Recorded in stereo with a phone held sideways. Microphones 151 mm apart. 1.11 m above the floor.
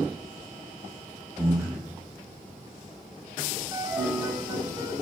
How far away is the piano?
About 1.4 m.